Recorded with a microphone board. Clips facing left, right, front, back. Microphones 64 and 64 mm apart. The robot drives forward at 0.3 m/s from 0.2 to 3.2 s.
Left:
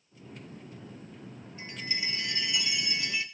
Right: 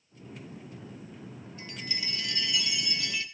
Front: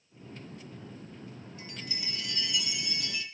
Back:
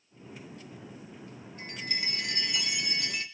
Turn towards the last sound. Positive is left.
turn(degrees=155)